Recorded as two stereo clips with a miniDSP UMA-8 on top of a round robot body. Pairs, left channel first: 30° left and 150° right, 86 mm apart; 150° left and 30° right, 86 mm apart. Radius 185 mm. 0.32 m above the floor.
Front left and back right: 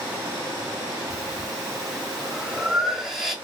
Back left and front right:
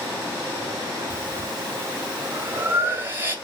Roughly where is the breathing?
Ahead right.